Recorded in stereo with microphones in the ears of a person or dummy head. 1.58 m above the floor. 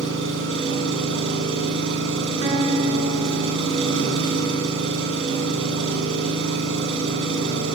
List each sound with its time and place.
0.0 s an engine running: 85° right, 9.5 m
2.4 s a guitar: 30° right (ahead or behind), 10 m